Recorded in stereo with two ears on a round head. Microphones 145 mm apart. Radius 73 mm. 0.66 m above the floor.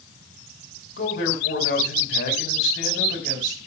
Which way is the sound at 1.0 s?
55° left (ahead or behind).